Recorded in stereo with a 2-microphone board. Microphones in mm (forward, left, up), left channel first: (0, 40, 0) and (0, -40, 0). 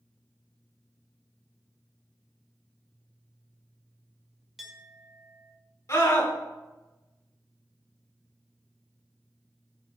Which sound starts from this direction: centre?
A clink, at 4.6 s.